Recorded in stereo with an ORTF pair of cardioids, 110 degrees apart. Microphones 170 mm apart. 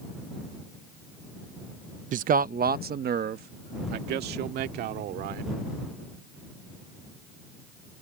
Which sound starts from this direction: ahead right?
A man speaking, at 2.1 s.